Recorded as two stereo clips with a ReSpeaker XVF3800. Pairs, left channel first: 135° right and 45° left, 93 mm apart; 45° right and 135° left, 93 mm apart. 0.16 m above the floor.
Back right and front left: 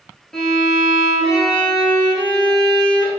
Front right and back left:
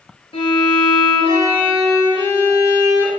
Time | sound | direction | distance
0.3 | a violin | 50° right | 1.0 m